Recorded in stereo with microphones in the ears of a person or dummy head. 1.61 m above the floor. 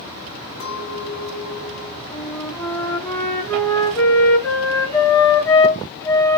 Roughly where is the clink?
Left.